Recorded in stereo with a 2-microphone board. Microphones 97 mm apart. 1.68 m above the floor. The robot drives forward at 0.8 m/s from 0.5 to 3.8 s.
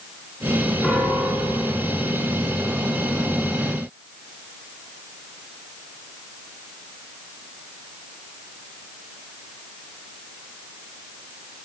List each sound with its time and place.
0.8 s a piano: 5° left (ahead or behind), 4 m